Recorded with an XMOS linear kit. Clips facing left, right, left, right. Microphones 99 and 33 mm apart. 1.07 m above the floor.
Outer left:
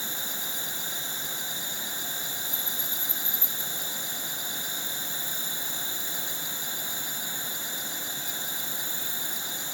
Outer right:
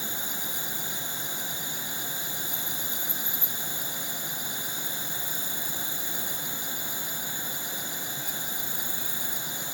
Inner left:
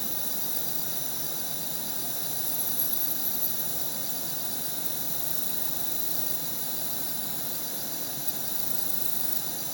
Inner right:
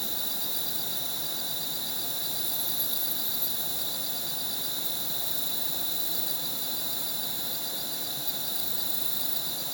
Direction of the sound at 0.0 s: 55° right (ahead or behind).